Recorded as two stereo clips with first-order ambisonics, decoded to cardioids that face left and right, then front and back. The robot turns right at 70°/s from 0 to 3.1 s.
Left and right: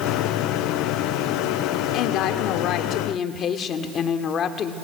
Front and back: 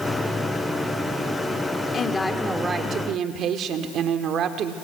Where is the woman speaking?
60° left, 1.3 m; by 4.7 s 140° left, 1.3 m.